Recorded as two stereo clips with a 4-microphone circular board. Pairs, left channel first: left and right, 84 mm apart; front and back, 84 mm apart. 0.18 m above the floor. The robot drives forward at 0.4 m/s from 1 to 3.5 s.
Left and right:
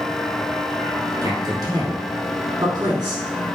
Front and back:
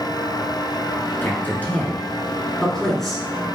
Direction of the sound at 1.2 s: 60° right.